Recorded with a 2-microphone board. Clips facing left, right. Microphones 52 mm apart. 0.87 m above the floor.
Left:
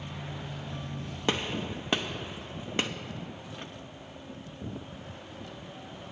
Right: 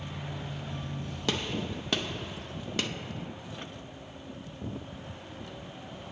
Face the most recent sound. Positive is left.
turn(degrees=25)  # may be behind; listen again after turning